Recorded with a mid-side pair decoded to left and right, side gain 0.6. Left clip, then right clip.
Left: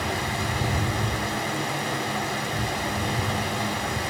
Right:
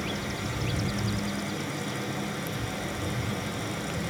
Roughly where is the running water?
Ahead left.